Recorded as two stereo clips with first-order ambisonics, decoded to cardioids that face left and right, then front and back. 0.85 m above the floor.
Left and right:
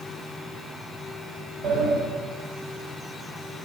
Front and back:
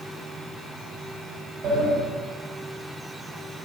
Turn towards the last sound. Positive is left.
turn(degrees=-130)